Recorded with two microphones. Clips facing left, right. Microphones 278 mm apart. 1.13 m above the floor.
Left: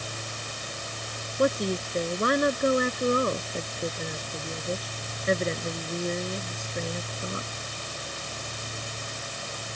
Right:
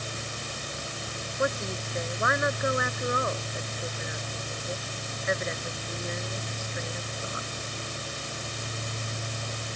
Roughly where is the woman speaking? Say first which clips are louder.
Left 6 dB; left.